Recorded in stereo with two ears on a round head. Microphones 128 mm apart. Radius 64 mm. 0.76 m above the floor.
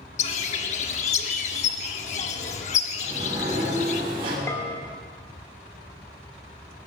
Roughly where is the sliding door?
Right.